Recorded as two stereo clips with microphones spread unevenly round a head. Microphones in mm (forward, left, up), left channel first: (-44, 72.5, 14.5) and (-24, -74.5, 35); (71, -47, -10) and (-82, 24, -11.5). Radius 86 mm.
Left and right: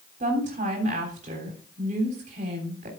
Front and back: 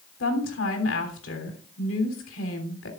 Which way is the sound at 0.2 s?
35° right.